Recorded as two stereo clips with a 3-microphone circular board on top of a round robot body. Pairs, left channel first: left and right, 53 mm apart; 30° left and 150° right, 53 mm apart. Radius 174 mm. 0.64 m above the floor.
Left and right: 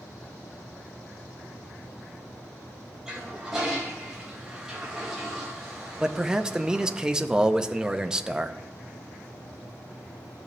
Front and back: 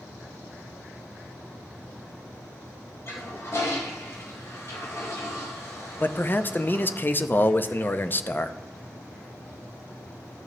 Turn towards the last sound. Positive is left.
turn(degrees=-15)